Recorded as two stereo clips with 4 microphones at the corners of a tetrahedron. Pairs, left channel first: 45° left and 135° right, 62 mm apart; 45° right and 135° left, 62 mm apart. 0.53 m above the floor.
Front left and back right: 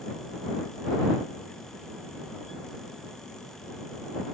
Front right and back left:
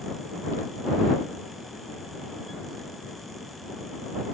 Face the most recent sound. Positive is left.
No sound to turn to.